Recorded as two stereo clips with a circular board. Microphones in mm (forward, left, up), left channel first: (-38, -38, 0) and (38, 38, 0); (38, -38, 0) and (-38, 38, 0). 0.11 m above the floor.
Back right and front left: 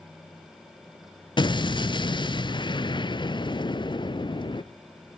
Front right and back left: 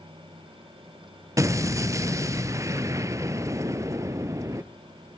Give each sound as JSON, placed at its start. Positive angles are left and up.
{"t": 1.4, "sound": "an explosion", "azimuth_deg": -170, "distance_m": 0.7}